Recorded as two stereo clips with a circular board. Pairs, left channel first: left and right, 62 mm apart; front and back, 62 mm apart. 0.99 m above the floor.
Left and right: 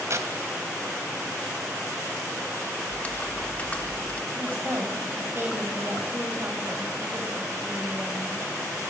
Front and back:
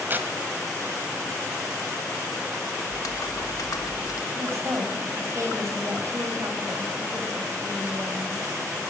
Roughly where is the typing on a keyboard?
Ahead.